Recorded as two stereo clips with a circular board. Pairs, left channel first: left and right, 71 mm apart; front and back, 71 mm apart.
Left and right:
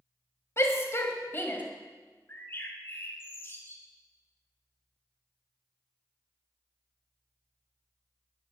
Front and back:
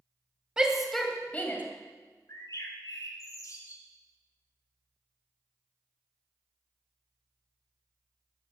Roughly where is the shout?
Left.